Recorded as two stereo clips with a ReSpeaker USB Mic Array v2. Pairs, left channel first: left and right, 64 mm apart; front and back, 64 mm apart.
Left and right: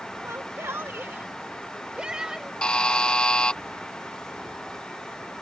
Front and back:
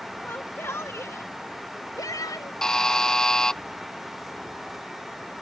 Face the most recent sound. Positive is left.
turn(degrees=55)